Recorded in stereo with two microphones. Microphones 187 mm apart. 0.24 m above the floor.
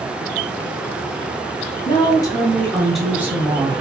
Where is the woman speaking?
30° left (ahead or behind), 1.1 m; by 3.8 s 25° right (ahead or behind), 1.1 m.